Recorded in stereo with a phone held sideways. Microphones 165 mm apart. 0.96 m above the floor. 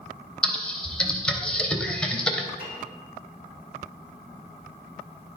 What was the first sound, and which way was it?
Typing on a keyboard, 5° left (ahead or behind).